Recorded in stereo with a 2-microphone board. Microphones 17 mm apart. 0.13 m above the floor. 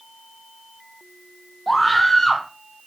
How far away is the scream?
About 4 m.